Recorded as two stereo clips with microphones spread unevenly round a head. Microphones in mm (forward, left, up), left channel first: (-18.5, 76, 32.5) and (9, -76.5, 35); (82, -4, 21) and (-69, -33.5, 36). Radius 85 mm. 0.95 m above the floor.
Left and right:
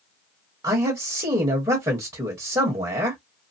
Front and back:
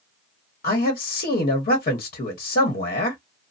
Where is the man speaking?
15° right, 1.0 m.